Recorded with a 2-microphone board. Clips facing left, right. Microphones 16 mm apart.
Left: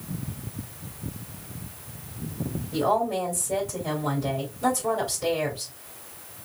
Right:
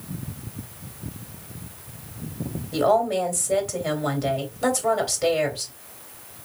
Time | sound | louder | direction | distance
2.7 | a woman speaking | right 4 dB | 45° right (ahead or behind) | 2 m